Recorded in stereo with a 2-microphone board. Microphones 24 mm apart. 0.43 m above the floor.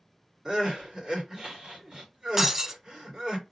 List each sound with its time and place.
0.5 s crying: 35° right (ahead or behind), 1.7 m
2.4 s breaking glass: 20° right (ahead or behind), 0.5 m